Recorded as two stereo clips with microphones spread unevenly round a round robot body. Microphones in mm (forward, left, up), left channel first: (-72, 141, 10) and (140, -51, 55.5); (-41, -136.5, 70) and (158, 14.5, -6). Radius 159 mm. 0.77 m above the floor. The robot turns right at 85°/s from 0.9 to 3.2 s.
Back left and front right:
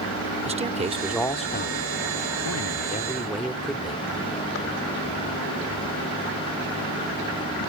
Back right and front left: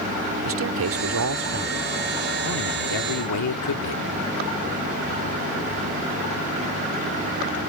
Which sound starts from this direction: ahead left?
A man speaking, at 0.5 s.